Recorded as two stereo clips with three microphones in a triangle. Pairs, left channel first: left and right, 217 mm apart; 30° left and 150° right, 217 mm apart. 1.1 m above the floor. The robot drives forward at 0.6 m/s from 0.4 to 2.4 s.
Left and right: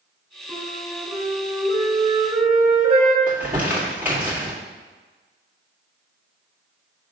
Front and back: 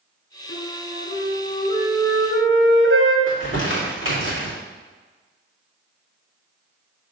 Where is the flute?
165° right, 1.7 m; by 3.2 s 170° right, 3 m.